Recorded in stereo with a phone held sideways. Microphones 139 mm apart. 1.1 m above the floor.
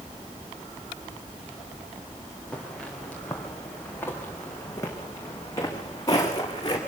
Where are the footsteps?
5° left (ahead or behind), 5.5 m; by 6.8 s 30° left (ahead or behind), 6 m.